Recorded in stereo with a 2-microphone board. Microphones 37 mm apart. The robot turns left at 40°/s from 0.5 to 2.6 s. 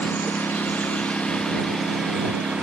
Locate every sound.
0.0 s a lawn mower: 55° left; by 2.6 s 25° right